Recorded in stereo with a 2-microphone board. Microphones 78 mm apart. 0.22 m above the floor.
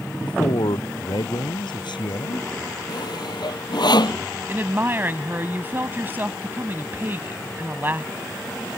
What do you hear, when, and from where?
0.2 s a man speaking: 80° left
2.9 s sawing: 70° left (ahead or behind)
4.5 s a woman speaking: 30° right (ahead or behind)